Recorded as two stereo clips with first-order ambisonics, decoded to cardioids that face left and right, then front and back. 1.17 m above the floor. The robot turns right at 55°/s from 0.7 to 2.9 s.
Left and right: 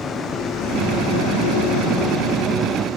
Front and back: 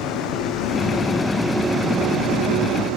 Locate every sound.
0.0 s a vehicle: 25° left; by 3.0 s 160° right